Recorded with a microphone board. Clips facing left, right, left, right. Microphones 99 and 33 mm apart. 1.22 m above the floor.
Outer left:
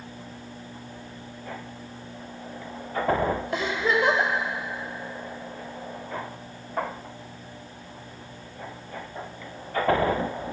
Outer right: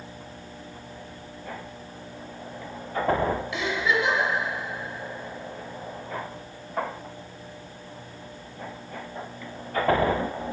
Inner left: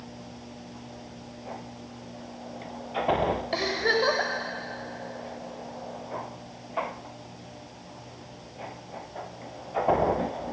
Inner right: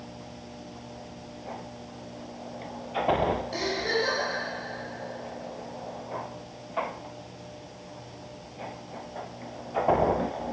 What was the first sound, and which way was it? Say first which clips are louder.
A giggle: outer left 1 dB, inner left 3 dB; 45° left (ahead or behind).